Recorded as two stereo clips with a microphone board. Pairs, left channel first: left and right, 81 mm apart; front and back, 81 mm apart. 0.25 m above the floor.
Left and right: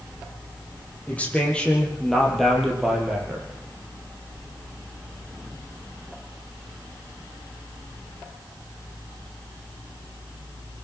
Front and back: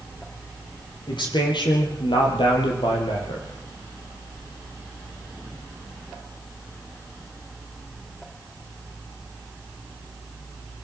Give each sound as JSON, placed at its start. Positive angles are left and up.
{"t": 1.1, "sound": "a man speaking", "azimuth_deg": 20, "distance_m": 7.0}